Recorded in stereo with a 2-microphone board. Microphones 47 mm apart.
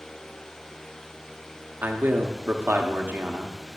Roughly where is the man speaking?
Right.